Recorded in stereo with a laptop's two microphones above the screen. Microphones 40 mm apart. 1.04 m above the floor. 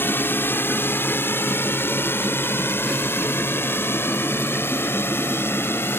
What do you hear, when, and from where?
0.0 s a drone: 65° left (ahead or behind); by 6.0 s 75° left (ahead or behind)